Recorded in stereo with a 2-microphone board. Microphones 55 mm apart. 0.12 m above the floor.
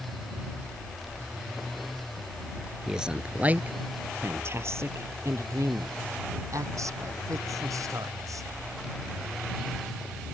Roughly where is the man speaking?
Centre.